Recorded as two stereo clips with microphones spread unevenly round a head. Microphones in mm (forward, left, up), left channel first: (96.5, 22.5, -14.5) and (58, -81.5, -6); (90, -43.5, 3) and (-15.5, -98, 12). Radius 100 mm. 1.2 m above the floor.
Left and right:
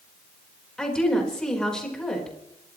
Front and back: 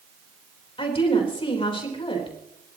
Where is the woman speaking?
15° right, 4 m.